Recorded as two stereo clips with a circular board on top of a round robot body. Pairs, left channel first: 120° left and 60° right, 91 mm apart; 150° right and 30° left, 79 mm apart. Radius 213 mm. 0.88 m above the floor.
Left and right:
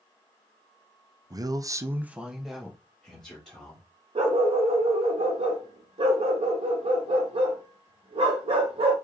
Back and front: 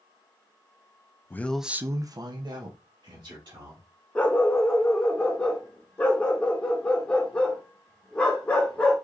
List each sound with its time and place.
1.3 s a man speaking: 95° right, 0.7 m; by 3.9 s 40° left, 2 m
4.2 s a dog barking: 75° right, 0.7 m